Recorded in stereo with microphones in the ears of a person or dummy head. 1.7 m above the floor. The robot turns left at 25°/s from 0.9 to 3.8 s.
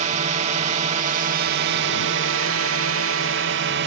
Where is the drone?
45° right; by 3.9 s 115° right.